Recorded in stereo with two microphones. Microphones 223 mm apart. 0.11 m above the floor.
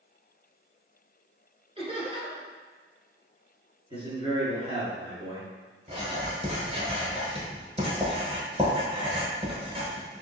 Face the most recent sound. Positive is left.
turn(degrees=-25)  # may be behind; listen again after turning